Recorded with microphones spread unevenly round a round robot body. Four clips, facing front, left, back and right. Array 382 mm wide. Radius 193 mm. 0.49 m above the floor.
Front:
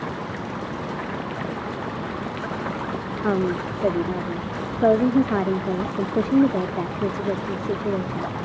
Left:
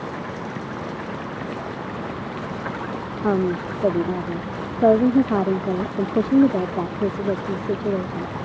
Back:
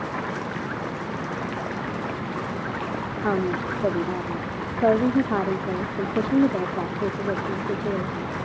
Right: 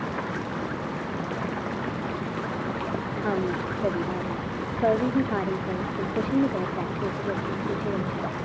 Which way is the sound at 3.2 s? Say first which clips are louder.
Left 7 dB, front 2 dB; 80° left.